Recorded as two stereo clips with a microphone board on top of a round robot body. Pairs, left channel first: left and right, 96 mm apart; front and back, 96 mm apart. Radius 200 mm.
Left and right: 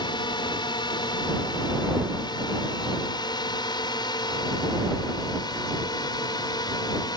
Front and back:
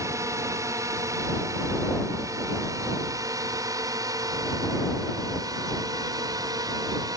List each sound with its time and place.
0.0 s a drone: 125° left; by 7.2 s 135° left